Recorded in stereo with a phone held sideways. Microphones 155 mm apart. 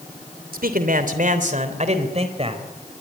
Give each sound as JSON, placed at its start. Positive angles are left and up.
{"t": 0.5, "sound": "a man speaking", "side_deg": -70, "distance_m": 3.0}